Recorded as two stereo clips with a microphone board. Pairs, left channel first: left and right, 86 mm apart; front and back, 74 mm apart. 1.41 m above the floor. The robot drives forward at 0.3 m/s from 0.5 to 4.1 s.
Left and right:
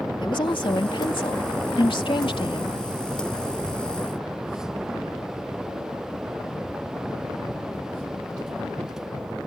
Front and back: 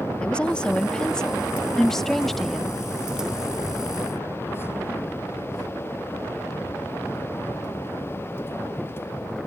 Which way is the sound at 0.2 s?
75° left.